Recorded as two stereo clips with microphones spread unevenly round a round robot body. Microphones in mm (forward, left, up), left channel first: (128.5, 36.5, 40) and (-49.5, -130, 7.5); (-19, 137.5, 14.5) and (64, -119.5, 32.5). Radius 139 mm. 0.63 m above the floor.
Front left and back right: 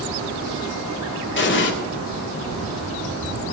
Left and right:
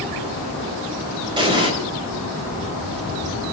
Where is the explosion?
Straight ahead, 4 m.